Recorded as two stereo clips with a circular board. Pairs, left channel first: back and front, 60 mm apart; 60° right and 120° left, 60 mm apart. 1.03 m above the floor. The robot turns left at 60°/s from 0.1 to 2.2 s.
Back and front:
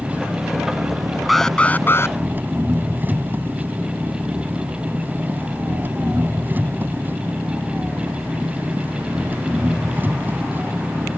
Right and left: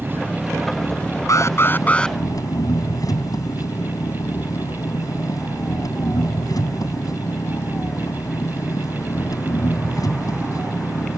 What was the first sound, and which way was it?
An engine running, 65° left.